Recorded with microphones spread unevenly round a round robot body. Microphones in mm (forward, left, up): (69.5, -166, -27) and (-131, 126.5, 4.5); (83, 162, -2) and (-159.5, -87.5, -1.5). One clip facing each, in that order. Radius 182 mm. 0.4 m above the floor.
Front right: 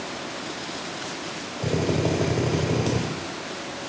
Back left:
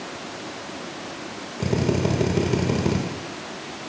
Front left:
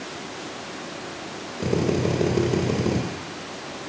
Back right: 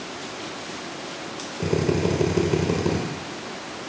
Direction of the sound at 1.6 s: 140° left.